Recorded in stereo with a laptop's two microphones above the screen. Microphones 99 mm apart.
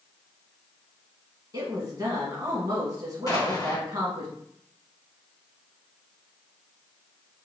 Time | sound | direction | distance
1.5 | a woman speaking | 45° right (ahead or behind) | 1.4 m
3.3 | an explosion | 40° left (ahead or behind) | 0.9 m